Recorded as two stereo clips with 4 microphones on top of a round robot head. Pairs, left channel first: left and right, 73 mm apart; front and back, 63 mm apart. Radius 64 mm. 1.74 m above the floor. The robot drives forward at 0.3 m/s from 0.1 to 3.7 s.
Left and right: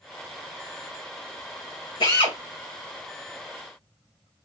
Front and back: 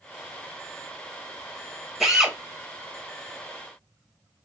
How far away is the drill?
About 2.5 m.